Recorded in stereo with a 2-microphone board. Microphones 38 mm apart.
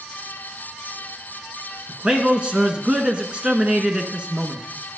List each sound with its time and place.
1.9 s a man speaking: 25° right (ahead or behind), 1.3 m